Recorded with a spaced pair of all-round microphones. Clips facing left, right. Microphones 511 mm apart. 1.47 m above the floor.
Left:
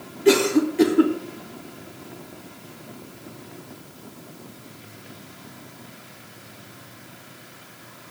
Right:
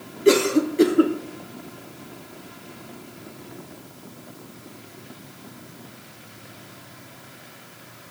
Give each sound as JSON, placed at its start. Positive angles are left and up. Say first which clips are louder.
{"t": 0.2, "sound": "a cough", "louder": "even", "side_deg": 15, "distance_m": 1.0}